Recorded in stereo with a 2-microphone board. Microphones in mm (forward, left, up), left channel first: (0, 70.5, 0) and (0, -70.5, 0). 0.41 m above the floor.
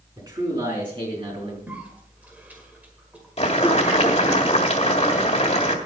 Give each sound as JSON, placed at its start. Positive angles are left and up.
{"t": 0.2, "sound": "a man speaking", "side_deg": -30, "distance_m": 4.0}
{"t": 1.7, "sound": "a cough", "side_deg": -10, "distance_m": 1.6}
{"t": 3.4, "sound": "boiling", "side_deg": 45, "distance_m": 1.7}